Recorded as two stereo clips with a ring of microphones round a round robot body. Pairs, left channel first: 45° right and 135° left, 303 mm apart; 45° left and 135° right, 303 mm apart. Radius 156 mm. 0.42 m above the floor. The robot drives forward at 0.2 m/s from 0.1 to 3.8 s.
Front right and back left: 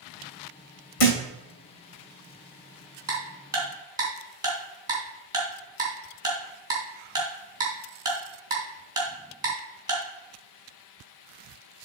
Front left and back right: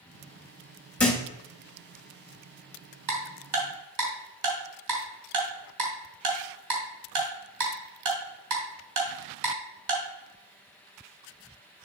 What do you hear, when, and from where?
1.0 s a thud: 40° right, 3 m
3.1 s ticking: 145° right, 3.5 m